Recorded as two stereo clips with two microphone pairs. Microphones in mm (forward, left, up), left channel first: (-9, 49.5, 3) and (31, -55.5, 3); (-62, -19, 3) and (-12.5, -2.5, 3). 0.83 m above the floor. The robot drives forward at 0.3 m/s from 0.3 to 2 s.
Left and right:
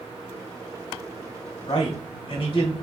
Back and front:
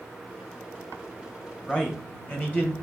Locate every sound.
1.7 s a man speaking: 145° left, 1.2 m